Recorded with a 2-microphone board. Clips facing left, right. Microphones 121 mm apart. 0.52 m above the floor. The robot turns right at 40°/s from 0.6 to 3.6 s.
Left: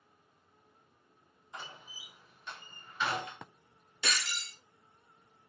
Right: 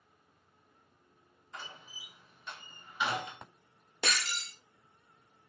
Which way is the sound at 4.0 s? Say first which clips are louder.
Right 2 dB; 55° right (ahead or behind).